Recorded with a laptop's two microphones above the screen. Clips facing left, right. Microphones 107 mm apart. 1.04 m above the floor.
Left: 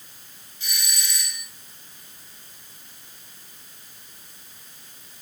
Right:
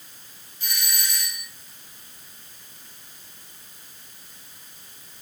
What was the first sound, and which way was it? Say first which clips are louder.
A doorbell: right 2 dB; 45° right (ahead or behind).